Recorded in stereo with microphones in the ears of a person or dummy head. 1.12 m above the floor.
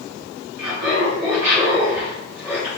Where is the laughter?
60° right (ahead or behind), 1.5 m; by 2.7 s 15° left (ahead or behind), 0.9 m.